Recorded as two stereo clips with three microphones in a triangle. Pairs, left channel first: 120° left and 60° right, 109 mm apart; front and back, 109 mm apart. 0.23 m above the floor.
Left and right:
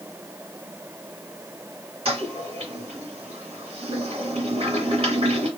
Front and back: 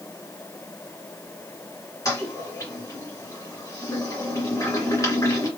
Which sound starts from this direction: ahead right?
A toilet flushing, at 2.0 s.